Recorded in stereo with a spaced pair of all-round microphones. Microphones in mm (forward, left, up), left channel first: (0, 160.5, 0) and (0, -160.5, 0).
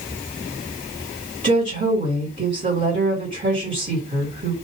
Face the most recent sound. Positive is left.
turn(degrees=-30)  # may be behind; listen again after turning